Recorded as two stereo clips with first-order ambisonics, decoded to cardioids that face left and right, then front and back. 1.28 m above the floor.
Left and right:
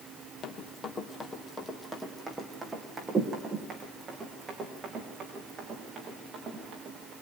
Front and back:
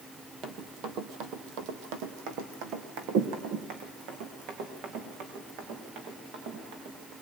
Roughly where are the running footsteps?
Behind left.